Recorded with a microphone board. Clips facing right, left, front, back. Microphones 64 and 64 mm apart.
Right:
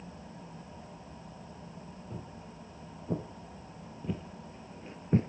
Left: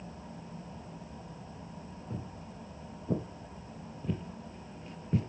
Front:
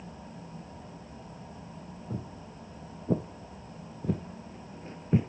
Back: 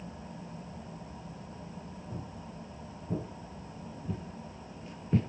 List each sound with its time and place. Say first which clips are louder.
2.1 s footsteps: left 3 dB, front 5 dB; 10° left, 3.5 m; by 5.3 s 75° right, 0.9 m